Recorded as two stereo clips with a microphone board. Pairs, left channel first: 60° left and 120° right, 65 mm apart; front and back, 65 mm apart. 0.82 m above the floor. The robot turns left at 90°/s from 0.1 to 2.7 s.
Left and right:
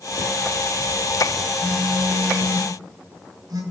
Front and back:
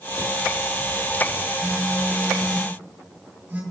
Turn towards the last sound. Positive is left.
turn(degrees=-115)